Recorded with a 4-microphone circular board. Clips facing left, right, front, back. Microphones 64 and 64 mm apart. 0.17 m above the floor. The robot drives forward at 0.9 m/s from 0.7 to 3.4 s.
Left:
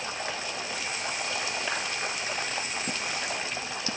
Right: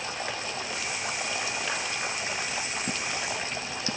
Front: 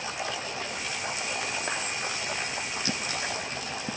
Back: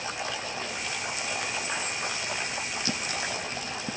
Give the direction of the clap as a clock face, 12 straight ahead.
12 o'clock.